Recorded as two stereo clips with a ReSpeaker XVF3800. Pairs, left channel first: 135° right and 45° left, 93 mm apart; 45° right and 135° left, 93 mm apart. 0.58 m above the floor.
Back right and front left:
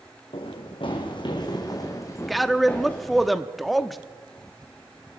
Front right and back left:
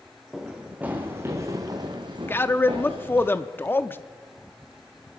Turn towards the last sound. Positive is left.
turn(degrees=-45)